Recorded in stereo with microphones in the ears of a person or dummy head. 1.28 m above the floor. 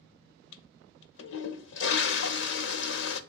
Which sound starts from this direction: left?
A toilet flushing, at 0.5 s.